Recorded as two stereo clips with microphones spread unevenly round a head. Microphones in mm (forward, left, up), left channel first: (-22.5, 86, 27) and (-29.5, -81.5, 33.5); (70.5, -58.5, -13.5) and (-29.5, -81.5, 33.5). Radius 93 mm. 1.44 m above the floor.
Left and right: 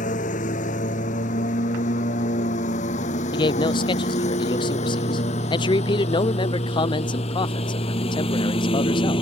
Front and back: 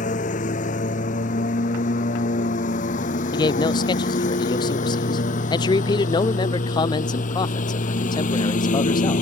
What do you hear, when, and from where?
0.0 s a lawn mower: 35° left; by 9.2 s 20° left
3.3 s a man speaking: 25° left